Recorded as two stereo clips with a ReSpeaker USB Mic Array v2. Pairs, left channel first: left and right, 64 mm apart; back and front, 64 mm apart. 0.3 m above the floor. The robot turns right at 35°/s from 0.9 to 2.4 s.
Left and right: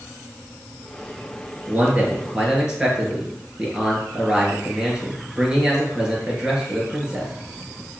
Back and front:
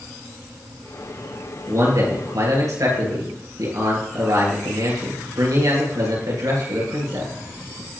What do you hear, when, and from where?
1.7 s a man speaking: 35° right, 6 m; by 7.3 s 10° right, 6 m